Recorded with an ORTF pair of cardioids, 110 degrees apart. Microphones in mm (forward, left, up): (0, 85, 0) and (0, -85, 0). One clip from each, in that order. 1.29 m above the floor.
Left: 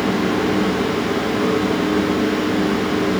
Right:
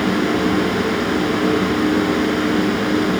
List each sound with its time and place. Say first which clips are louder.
0.0 s a fan: right 1 dB; 30° right, 5.5 m